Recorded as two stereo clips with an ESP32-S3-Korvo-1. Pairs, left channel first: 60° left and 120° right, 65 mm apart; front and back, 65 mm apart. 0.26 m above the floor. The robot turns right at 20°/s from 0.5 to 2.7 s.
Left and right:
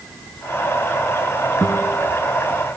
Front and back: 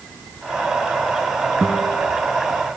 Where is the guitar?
115° left, 6.5 m; by 2.0 s 125° left, 6.5 m.